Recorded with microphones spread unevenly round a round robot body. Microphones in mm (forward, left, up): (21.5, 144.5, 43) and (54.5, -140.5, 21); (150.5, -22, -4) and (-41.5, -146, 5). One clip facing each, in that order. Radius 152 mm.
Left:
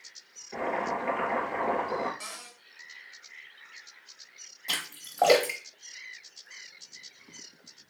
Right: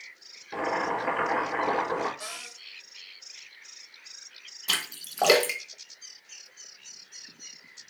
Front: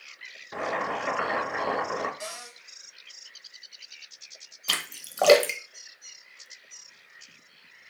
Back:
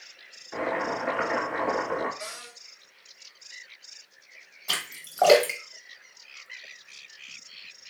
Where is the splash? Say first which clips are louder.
Right 2 dB, even; 15° right, 0.9 m.